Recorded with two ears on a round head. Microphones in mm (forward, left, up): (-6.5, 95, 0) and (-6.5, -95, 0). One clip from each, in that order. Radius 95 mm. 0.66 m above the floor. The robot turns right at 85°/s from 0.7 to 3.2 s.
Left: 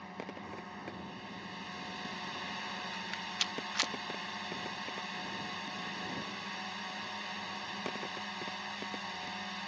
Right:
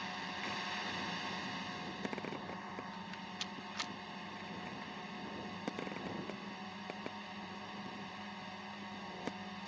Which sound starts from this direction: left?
A rattle, at 2.9 s.